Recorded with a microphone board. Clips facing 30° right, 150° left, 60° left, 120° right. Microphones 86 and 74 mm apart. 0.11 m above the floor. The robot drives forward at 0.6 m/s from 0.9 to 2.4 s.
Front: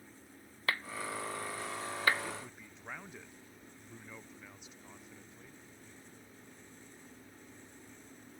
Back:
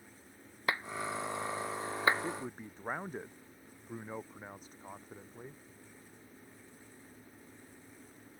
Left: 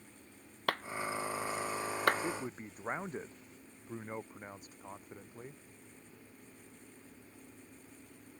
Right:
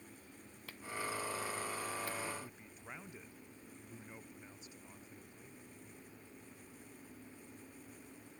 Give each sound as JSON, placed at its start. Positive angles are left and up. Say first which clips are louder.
{"t": 0.7, "sound": "a clap", "louder": "back 2 dB, left 7 dB", "azimuth_deg": 80}
{"t": 2.2, "sound": "a man speaking", "louder": "back 5 dB, left 7 dB", "azimuth_deg": 100}